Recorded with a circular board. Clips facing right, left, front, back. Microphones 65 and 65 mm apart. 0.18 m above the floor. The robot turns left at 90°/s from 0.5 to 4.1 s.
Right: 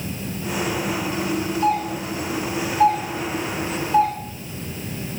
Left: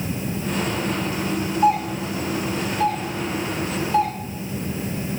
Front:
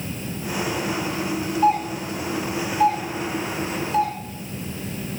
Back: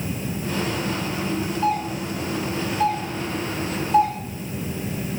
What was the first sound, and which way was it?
A doorbell, 40° left.